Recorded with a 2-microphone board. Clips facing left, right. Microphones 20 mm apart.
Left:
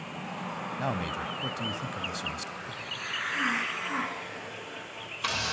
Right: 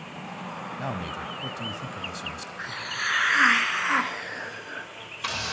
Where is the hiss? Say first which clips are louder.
Right 6 dB; 55° right (ahead or behind), 1.6 m.